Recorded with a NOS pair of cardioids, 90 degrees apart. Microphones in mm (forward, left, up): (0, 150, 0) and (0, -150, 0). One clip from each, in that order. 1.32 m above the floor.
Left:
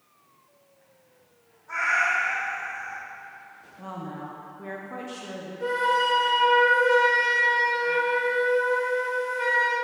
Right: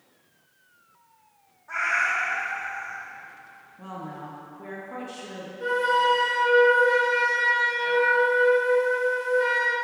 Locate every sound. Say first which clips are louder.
1.7 s a cat meowing: left 1 dB; 10° right, 1.6 m
3.8 s a woman speaking: left 1 dB; 10° left, 0.5 m
5.6 s a flute: right 1 dB; 10° left, 1.4 m